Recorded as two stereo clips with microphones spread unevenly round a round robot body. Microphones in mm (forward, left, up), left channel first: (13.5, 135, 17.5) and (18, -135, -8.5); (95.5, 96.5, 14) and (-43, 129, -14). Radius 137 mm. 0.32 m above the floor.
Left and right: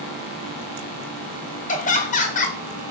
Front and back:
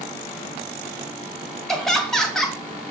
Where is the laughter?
100° left, 1.1 m.